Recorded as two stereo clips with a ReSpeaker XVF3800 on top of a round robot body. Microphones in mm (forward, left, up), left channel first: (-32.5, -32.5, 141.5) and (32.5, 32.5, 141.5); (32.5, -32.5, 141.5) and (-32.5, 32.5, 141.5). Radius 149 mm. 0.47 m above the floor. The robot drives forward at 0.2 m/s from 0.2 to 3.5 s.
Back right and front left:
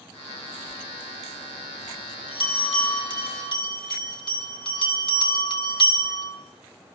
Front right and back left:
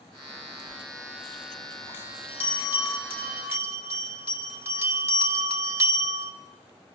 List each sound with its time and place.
0.7 s a bell: 160° right, 4 m